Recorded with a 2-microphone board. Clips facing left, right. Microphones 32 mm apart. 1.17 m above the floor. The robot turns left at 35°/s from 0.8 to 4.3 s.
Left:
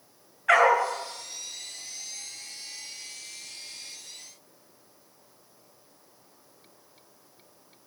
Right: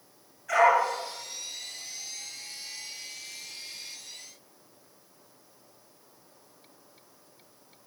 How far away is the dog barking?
About 6.5 m.